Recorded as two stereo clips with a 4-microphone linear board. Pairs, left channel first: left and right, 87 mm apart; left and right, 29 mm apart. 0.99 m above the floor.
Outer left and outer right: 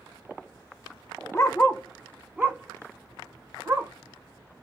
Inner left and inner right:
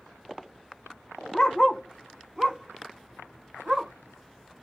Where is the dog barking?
35° left (ahead or behind), 0.5 m; by 3.9 s 30° right (ahead or behind), 1.5 m.